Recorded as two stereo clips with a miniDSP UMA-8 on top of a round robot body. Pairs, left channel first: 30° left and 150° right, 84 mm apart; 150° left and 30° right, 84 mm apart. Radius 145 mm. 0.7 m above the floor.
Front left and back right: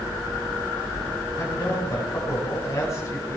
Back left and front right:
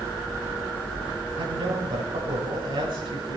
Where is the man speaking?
20° right, 7 m.